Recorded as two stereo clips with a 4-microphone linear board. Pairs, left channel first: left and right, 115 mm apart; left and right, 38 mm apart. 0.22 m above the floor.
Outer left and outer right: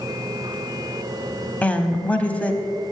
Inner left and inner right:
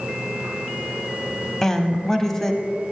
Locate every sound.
1.6 s a woman speaking: 10° left (ahead or behind), 1.0 m